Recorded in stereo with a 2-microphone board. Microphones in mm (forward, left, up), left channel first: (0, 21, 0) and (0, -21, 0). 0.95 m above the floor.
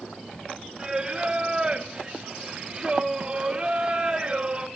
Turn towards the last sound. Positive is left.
turn(degrees=-20)  # may be behind; listen again after turning